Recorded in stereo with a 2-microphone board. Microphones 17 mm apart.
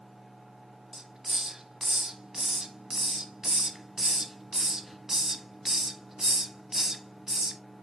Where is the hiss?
30° right (ahead or behind), 0.8 m.